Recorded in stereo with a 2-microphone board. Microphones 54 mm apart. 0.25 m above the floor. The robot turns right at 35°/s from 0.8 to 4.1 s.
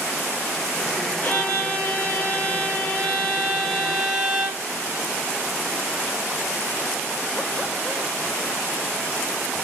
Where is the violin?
85° left, 0.9 m; by 4.6 s 175° right, 0.9 m.